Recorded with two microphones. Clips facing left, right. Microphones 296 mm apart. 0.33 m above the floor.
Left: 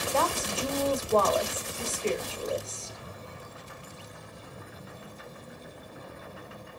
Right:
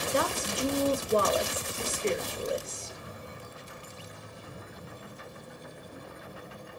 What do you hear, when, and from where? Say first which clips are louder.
0.1 s a woman speaking: even; 20° right (ahead or behind), 1.1 m